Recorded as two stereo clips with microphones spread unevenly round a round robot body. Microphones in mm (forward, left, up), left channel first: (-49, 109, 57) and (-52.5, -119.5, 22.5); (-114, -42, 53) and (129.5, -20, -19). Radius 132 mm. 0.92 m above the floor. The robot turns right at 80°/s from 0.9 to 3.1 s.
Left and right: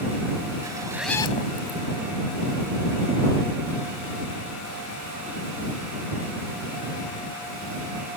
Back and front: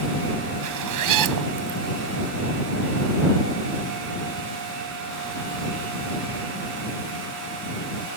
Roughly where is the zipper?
Ahead.